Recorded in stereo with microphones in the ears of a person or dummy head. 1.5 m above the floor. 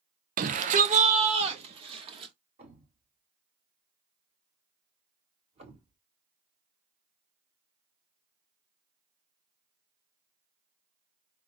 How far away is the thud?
About 2.5 m.